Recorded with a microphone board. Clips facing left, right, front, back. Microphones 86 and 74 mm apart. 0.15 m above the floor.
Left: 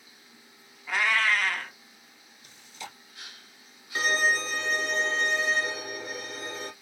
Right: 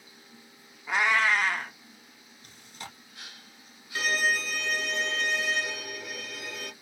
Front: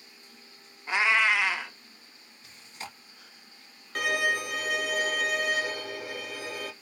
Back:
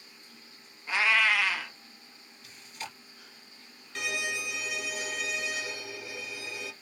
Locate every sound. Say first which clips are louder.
0.9 s a cat meowing: right 1 dB, front 1 dB; 45° right, 0.5 m
2.4 s chewing: left 1 dB, even; 60° right, 1.3 m
4.0 s a violin: left 2 dB, front 7 dB; 35° left, 0.6 m